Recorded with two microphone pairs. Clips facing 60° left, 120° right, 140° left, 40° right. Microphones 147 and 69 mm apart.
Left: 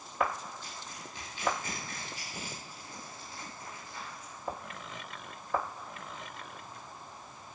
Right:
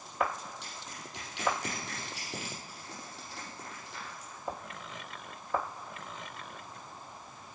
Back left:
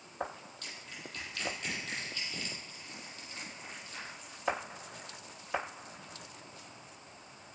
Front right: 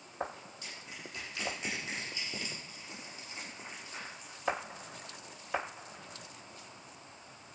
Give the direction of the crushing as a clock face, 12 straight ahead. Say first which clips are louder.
Even, even; 4 o'clock.